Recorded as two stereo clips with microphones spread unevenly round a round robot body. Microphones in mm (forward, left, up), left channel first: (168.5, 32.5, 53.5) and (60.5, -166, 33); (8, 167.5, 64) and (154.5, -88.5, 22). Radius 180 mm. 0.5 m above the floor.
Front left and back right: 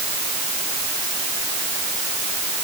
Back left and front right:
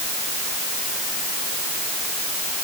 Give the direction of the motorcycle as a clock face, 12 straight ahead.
I don't hear a motorcycle.